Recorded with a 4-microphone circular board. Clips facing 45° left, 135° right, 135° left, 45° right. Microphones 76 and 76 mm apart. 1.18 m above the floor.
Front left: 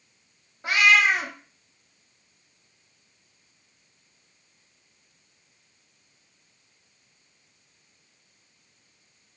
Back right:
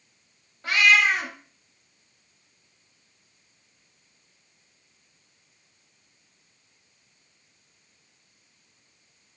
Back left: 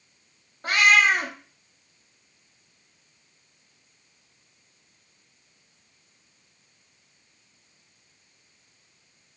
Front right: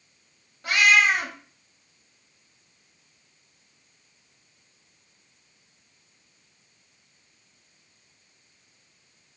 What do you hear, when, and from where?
0.6 s a cat meowing: 105° left, 0.6 m